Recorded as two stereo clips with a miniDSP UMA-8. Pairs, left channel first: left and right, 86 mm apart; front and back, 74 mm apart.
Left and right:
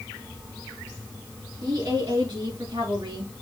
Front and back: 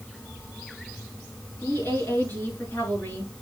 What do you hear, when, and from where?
1.6 s a woman speaking: 60° right, 7 m; by 3.3 s 70° right, 6.5 m